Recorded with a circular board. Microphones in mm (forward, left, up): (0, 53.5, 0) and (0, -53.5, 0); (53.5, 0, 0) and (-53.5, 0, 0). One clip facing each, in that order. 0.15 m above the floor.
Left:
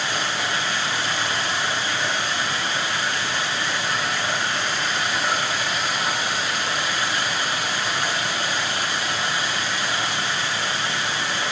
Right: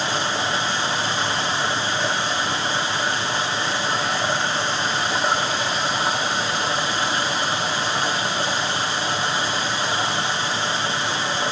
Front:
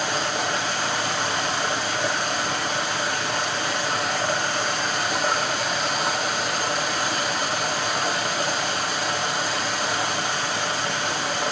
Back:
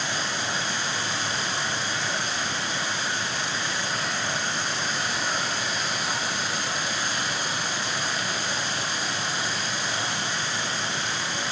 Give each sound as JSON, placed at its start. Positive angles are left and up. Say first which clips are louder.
{"t": 0.0, "sound": "running water", "louder": "right 3 dB, front 5 dB", "azimuth_deg": -30, "distance_m": 7.0}